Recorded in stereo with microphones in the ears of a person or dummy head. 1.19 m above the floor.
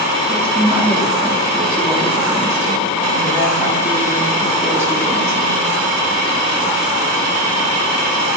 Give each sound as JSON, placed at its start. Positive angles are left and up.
{"t": 0.3, "sound": "a woman speaking", "side_deg": -10, "distance_m": 0.5}